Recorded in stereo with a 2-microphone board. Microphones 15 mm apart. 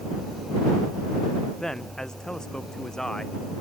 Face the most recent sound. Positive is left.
turn(degrees=50)  # may be behind; listen again after turning